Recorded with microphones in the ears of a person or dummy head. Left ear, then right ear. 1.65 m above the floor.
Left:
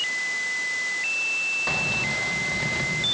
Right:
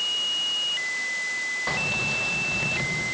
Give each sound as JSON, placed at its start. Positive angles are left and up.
{"t": 1.7, "sound": "keys jangling", "side_deg": 0, "distance_m": 1.0}